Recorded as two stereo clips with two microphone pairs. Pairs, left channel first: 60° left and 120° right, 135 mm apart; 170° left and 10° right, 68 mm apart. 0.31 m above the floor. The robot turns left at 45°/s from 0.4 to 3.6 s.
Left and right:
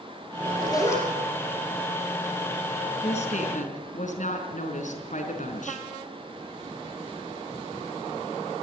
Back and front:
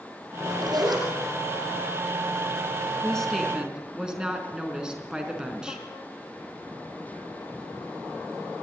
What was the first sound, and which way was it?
A zipper, 15° left.